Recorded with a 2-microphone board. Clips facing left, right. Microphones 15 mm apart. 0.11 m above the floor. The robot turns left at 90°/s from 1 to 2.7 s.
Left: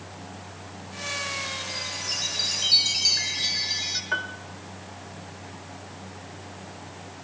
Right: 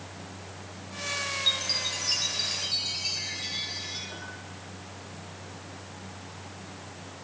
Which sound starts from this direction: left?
A piano, at 4.1 s.